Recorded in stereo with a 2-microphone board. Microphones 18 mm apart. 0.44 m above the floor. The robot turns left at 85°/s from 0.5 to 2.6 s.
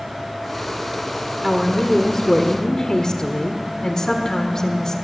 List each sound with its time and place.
1.4 s a woman speaking: 165° right, 1.5 m; by 5.0 s 95° left, 1.5 m